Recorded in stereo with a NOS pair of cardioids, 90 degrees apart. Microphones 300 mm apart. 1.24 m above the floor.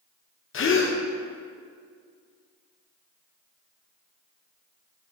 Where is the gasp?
45° left, 0.8 m.